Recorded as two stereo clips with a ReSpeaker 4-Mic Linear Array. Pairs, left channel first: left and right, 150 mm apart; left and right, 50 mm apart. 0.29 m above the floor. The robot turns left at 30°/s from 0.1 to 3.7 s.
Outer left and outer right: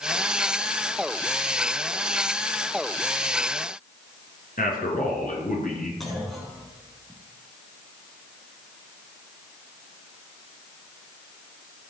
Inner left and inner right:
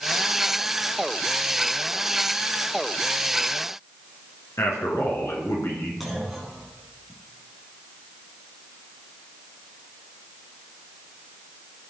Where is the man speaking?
70° left (ahead or behind), 3.5 m.